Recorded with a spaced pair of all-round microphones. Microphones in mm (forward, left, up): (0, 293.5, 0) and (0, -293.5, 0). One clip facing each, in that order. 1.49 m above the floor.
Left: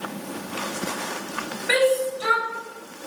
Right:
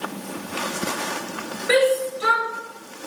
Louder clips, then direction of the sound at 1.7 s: Right 2 dB; 20° left (ahead or behind).